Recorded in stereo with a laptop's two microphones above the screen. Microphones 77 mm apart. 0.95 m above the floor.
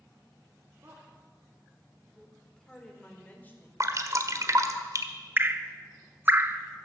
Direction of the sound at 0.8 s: 35° right (ahead or behind).